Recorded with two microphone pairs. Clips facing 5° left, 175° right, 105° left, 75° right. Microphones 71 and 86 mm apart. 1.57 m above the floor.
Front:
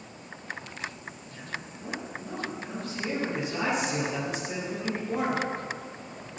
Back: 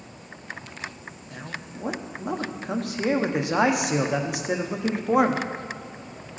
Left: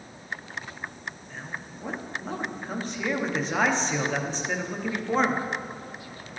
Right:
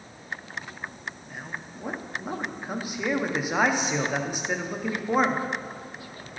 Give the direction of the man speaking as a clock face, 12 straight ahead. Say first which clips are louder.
Back 3 dB, even; 5 o'clock.